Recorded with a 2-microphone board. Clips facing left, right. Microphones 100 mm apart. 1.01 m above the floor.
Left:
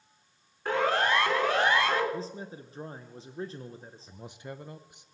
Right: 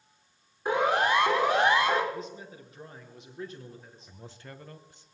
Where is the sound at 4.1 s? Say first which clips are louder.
Left 5 dB; 20° left (ahead or behind), 0.5 m.